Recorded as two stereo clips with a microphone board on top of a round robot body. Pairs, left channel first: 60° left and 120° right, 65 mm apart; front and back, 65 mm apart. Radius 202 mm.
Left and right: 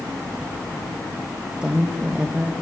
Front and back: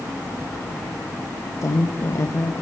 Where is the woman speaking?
45° right, 2 m.